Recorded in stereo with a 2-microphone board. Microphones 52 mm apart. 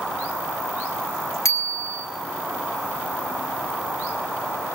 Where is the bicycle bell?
80° left, 2.5 m.